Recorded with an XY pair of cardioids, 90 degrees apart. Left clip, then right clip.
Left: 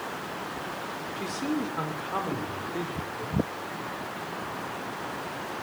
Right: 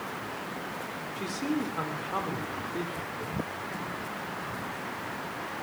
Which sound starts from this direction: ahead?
A man speaking, at 1.2 s.